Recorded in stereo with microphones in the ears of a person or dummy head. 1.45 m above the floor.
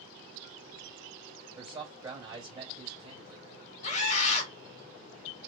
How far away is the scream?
About 0.9 m.